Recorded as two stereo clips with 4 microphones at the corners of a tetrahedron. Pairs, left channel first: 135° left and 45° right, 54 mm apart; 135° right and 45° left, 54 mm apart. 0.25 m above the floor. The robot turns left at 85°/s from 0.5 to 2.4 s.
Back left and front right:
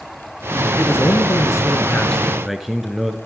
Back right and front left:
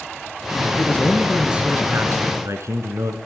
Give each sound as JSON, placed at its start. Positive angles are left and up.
{"t": 0.8, "sound": "a man speaking", "azimuth_deg": 180, "distance_m": 3.0}